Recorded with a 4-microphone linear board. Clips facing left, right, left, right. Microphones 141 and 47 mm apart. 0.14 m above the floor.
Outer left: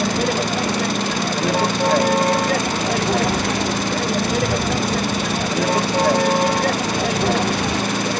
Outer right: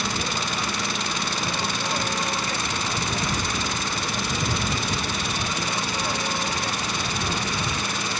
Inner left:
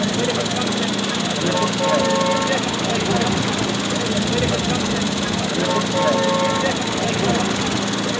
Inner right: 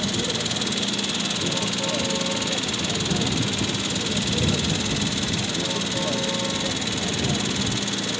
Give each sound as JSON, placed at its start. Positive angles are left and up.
{"t": 0.0, "sound": "a vehicle", "side_deg": 90}